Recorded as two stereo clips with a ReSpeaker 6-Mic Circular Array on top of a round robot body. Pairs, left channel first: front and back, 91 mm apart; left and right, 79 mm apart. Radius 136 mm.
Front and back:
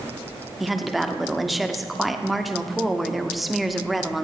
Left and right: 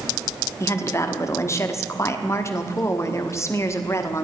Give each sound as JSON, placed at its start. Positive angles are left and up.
{"t": 0.6, "sound": "a woman speaking", "azimuth_deg": 90, "distance_m": 1.5}